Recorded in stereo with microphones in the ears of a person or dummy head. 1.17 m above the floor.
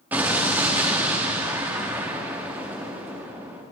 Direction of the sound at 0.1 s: 10° right (ahead or behind).